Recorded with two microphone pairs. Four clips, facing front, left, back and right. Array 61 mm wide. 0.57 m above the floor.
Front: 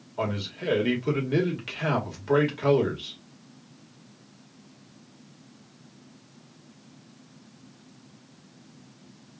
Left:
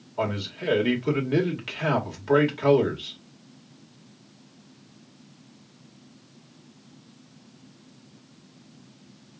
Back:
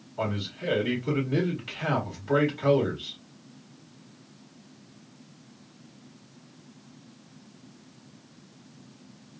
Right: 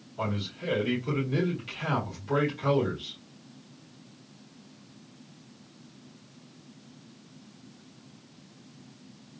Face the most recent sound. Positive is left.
turn(degrees=70)